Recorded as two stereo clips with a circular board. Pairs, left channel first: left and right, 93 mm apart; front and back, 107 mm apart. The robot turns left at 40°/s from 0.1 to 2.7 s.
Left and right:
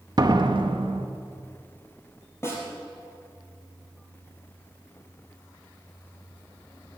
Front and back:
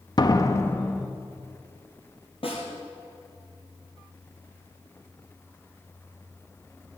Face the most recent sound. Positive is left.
turn(degrees=20)